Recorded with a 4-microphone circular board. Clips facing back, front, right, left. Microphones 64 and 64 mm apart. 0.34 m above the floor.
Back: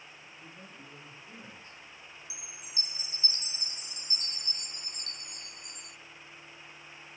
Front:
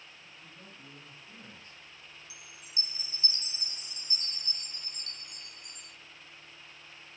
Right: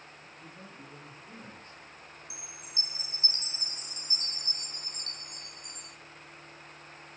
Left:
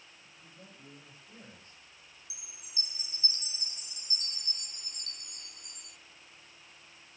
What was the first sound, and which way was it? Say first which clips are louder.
A man speaking: back 3 dB, right 5 dB; 120° right.